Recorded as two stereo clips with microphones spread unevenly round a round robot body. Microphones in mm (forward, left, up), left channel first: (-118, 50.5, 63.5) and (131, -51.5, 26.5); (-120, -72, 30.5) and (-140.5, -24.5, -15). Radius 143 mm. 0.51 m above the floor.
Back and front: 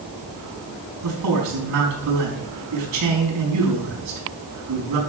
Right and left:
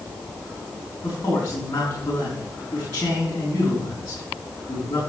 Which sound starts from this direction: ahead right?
A man speaking, at 1.0 s.